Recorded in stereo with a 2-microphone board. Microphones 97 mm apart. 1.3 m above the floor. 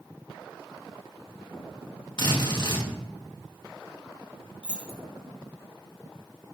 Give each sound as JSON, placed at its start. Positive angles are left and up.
{"t": 2.2, "sound": "a drill", "side_deg": 50, "distance_m": 1.7}
{"t": 4.6, "sound": "keys jangling", "side_deg": 10, "distance_m": 1.9}